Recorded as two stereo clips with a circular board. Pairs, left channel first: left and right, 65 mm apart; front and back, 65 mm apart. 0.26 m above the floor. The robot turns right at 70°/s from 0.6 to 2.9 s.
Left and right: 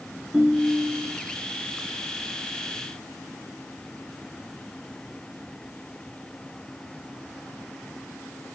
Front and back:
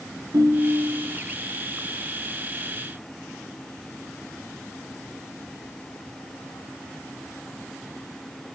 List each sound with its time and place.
0.3 s a ringtone: straight behind, 2 m; by 1.2 s 140° right, 2 m